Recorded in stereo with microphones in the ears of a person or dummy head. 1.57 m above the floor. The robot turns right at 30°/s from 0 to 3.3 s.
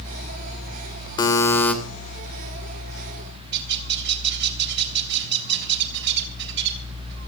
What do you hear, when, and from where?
1.2 s a buzzer: 25° left (ahead or behind), 3 m; by 1.7 s 10° left (ahead or behind), 3 m
3.5 s a bird: 65° right (ahead or behind), 3.5 m